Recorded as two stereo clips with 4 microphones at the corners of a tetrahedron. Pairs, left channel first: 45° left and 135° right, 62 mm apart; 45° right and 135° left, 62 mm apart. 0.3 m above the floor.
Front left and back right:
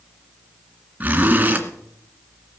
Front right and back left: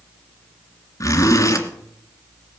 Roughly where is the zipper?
Right.